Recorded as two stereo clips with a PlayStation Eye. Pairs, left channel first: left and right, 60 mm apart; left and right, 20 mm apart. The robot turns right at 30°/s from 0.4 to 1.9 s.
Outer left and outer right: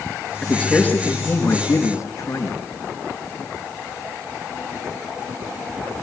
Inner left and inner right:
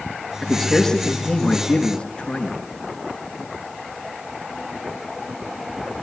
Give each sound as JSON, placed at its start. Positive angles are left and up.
{"t": 0.4, "sound": "a man speaking", "azimuth_deg": 10, "distance_m": 5.0}